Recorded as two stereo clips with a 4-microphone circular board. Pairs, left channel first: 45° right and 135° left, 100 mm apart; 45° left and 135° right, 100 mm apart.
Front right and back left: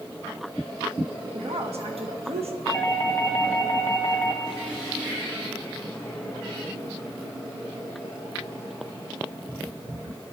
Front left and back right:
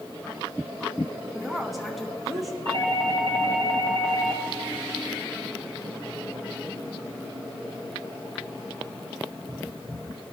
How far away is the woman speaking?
About 1.3 m.